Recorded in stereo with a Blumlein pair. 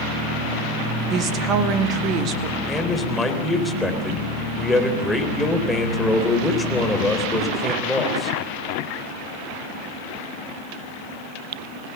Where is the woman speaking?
30° right, 2 m; by 2.6 s 35° right, 3 m.